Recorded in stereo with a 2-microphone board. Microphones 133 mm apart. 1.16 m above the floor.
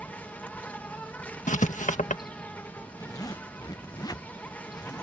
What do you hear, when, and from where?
0.0 s an insect: 10° left (ahead or behind)
1.5 s writing: 70° left (ahead or behind)
3.0 s a zipper: 30° left (ahead or behind)